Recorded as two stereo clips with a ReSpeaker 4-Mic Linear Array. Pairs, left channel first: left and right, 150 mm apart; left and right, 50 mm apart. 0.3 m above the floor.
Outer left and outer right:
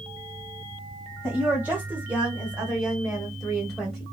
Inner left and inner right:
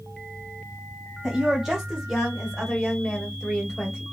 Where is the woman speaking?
10° right (ahead or behind), 1.5 m; by 4.0 s 5° left (ahead or behind), 1.4 m.